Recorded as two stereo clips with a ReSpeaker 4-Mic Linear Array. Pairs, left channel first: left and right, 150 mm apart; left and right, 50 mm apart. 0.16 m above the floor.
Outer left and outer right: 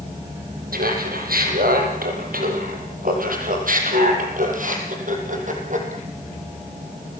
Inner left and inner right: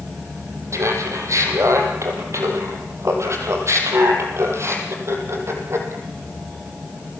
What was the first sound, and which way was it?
Laughter, 75° right (ahead or behind).